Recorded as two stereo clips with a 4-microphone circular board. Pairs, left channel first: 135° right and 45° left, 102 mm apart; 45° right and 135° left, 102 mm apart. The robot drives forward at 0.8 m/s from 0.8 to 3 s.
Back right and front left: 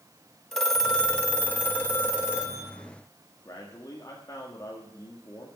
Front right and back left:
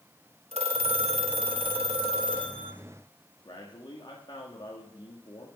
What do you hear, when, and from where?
0.5 s a phone ringing: 140° left, 1.5 m; by 2.7 s 160° left, 3 m
3.5 s a man speaking: 85° right, 1.7 m